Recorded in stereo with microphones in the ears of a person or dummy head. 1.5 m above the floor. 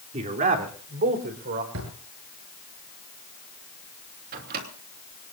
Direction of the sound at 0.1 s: 35° right (ahead or behind).